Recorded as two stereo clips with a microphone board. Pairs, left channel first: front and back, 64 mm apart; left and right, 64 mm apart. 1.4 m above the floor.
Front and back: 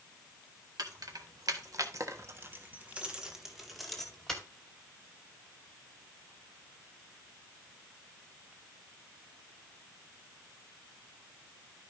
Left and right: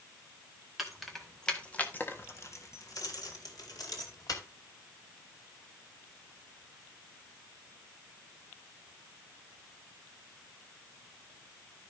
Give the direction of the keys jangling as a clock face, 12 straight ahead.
6 o'clock.